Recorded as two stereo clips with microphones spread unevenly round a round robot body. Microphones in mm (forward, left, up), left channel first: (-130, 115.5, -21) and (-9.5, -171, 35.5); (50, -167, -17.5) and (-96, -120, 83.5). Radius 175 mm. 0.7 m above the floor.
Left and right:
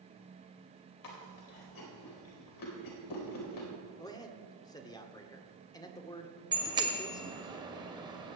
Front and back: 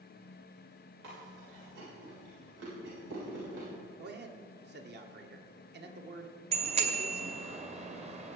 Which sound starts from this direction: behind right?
A bicycle bell, at 6.5 s.